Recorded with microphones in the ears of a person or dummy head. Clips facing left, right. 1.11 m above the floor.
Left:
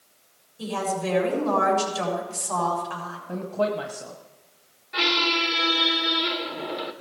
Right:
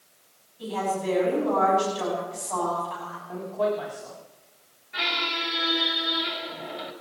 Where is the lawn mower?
No lawn mower in this recording.